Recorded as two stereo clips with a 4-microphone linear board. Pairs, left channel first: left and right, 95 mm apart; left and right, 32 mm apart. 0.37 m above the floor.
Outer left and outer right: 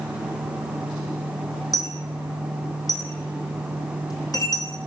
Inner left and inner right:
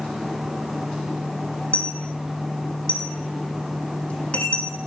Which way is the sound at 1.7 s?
40° left (ahead or behind).